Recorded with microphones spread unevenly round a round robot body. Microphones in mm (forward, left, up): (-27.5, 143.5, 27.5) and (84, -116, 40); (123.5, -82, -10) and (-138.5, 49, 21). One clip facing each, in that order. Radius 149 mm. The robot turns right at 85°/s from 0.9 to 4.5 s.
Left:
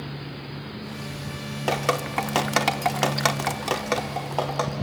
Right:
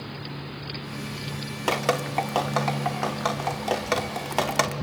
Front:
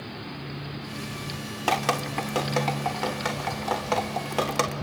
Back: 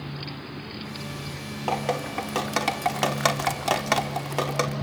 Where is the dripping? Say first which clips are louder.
Even, back 1 dB; 10° left, 1.0 m; by 4.7 s 110° right, 1.0 m.